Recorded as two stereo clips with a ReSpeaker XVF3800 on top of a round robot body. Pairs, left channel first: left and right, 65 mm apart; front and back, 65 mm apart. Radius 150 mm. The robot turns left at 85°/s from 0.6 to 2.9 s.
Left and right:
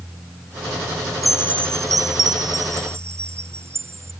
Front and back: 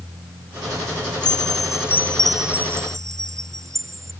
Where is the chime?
Straight ahead; by 4.1 s 140° right.